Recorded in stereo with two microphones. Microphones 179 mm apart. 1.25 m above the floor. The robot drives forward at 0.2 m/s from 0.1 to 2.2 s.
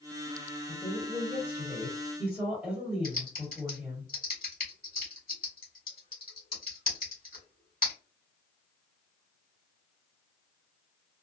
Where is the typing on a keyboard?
55° left (ahead or behind), 1.3 m.